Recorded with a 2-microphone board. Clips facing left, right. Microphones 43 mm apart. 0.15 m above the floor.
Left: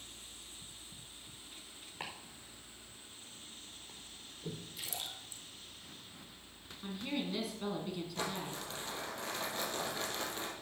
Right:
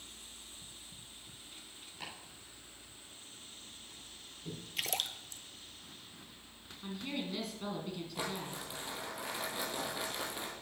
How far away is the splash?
About 0.7 m.